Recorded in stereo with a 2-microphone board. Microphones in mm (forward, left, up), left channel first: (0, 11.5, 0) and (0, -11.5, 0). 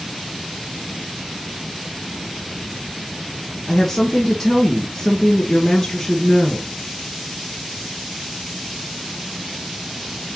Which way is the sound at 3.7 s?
10° left (ahead or behind).